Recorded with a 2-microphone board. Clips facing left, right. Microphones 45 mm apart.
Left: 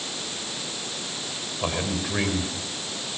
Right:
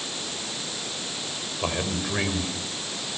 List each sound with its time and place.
1.6 s a man speaking: 5° right (ahead or behind), 4 m